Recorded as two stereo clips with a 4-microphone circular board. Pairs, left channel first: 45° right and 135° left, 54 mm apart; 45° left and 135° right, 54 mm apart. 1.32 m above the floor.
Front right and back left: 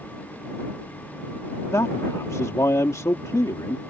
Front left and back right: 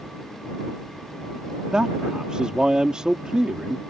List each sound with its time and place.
1.7 s a man speaking: 60° right